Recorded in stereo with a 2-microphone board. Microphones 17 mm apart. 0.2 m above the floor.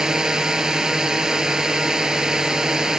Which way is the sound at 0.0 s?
45° right (ahead or behind).